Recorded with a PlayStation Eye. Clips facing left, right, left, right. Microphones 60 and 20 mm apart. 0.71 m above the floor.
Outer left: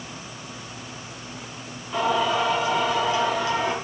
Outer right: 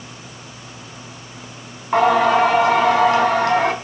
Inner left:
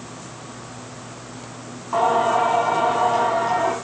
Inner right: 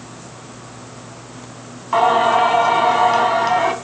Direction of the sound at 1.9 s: 60° right (ahead or behind).